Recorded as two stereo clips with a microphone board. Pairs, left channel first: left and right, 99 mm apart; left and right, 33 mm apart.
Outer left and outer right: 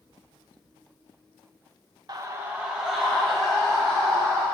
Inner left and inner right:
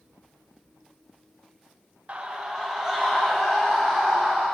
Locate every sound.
2.1 s a scream: 45° right (ahead or behind), 0.7 m; by 4.5 s 10° left (ahead or behind), 3 m